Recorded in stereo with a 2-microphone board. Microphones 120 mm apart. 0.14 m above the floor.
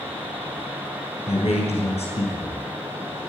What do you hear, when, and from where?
1.3 s a man speaking: 55° left (ahead or behind), 3 m